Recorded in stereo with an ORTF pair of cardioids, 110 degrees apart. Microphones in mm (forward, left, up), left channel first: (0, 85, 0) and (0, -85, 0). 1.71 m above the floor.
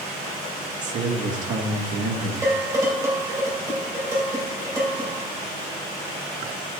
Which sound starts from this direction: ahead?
Dishes clattering, at 2.4 s.